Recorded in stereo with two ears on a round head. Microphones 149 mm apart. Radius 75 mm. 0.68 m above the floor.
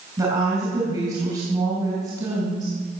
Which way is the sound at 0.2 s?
25° right (ahead or behind).